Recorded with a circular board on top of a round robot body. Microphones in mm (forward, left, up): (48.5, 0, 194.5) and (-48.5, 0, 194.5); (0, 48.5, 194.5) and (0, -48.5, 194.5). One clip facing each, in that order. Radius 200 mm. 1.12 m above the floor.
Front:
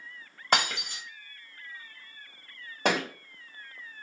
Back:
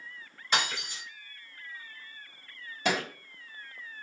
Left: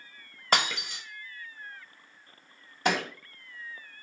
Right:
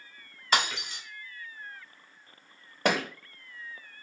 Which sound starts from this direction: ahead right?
A thud, at 2.9 s.